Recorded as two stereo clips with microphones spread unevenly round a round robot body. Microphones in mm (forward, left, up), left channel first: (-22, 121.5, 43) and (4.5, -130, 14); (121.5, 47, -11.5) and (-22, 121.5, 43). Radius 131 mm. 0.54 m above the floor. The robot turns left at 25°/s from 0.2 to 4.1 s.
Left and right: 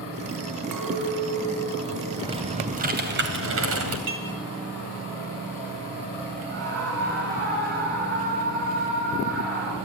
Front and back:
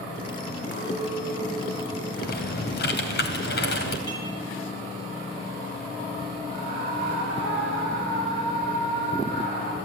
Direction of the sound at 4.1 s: 100° right.